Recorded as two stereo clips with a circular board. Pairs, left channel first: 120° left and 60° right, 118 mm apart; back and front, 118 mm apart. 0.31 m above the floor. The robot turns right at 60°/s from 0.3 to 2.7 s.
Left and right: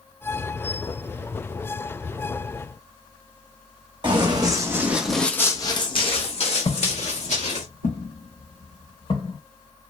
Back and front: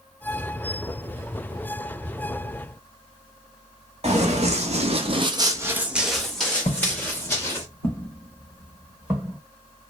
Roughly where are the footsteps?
Behind left.